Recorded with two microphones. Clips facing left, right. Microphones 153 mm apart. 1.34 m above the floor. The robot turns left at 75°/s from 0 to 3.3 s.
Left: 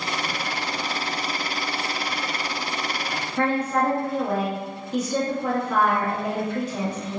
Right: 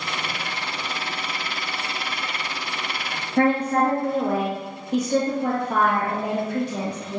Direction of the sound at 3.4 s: 60° right (ahead or behind).